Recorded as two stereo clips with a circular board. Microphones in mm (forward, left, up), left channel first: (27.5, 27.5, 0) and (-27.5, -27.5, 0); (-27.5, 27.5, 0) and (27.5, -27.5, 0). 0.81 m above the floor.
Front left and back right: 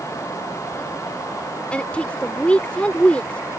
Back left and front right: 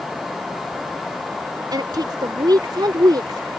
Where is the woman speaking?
30° right.